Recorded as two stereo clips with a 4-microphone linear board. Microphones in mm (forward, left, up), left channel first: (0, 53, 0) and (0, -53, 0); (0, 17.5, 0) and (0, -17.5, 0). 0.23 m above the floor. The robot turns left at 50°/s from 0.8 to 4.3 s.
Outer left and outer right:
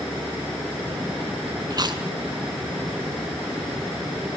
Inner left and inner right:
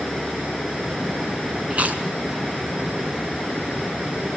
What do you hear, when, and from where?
1.7 s chewing: 35° right (ahead or behind), 2 m; by 2.0 s 50° right (ahead or behind), 2 m